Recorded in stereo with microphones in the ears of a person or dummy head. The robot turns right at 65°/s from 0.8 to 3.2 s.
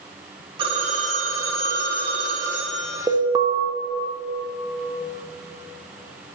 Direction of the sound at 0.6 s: 135° right.